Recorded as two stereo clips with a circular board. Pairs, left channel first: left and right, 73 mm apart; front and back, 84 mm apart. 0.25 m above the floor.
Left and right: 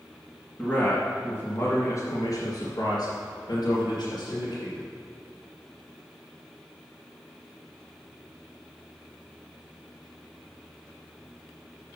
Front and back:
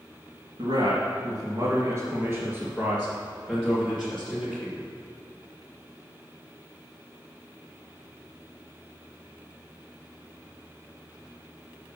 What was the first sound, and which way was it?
A man speaking, 170° left.